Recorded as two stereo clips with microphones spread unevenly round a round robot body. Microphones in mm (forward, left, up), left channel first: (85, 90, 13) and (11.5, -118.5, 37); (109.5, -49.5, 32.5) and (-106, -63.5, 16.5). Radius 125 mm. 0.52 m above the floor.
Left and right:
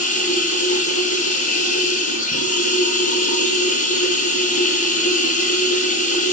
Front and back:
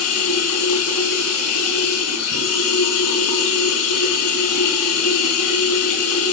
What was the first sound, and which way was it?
Running water, 15° left.